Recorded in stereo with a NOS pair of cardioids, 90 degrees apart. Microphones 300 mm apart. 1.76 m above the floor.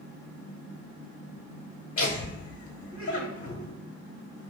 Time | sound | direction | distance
2.0 | laughter | 45° left | 1.0 m